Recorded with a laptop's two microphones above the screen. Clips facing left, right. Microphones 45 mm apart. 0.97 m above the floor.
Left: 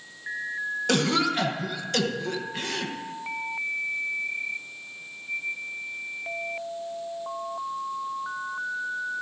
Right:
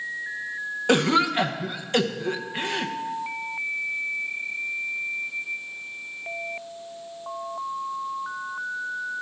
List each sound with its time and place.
0.9 s a cough: 20° right (ahead or behind), 0.7 m